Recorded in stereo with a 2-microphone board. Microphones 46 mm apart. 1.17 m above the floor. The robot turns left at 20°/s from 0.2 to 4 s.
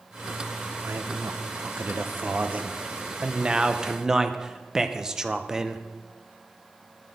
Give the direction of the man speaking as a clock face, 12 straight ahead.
3 o'clock.